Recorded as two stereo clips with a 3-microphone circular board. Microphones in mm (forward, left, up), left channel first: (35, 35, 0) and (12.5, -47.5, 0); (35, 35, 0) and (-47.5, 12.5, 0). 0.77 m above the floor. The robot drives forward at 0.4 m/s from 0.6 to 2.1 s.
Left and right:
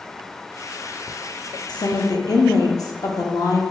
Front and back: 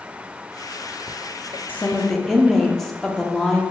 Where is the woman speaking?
80° left, 0.6 m; by 3.6 s 100° left, 0.6 m.